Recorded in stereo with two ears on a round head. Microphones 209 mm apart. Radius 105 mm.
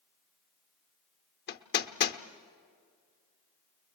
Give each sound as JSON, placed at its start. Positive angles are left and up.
{"t": 1.5, "sound": "hammering", "side_deg": 45, "distance_m": 0.8}